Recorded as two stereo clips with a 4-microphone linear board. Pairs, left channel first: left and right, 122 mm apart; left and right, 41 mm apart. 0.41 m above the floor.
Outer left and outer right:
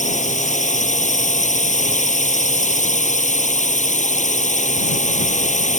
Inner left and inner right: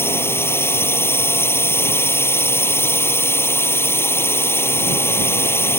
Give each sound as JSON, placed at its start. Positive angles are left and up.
{"t": 0.0, "sound": "a drone", "side_deg": 85}